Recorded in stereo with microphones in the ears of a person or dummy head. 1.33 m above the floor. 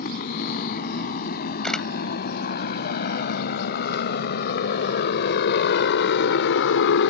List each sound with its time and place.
0.0 s a motorcycle: 55° left (ahead or behind); by 7.1 s 65° left (ahead or behind)
1.6 s a camera shutter: 5° right (ahead or behind)